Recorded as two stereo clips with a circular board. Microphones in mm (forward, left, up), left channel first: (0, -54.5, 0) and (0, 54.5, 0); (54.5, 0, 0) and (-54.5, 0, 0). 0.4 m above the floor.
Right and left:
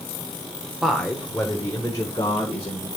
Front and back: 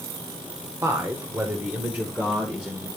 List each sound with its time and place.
0.8 s a man speaking: 175° left, 1.0 m; by 2.9 s 100° right, 1.5 m